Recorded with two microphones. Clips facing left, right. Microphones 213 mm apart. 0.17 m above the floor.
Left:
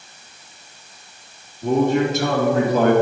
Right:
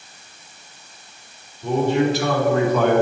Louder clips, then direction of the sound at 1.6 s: Left 1 dB; 45° left (ahead or behind).